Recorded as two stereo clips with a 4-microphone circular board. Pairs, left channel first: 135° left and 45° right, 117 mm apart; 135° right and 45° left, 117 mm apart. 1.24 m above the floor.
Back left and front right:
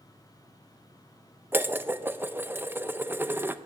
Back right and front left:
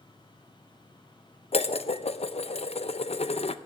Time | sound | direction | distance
1.5 | dishes clattering | 115° right | 0.6 m